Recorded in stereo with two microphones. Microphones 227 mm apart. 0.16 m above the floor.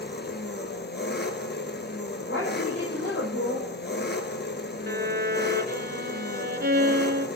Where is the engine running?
50° left (ahead or behind), 1.5 m.